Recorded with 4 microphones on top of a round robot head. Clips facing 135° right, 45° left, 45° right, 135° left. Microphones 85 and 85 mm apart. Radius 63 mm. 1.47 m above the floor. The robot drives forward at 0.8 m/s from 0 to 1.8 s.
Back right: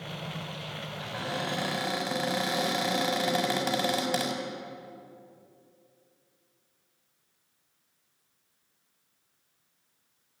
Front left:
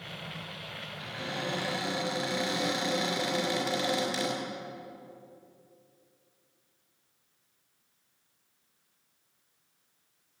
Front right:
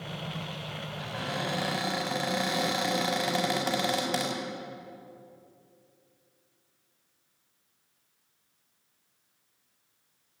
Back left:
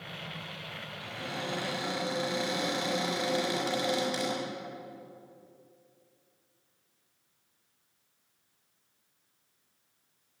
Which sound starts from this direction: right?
A cupboard door, at 1.0 s.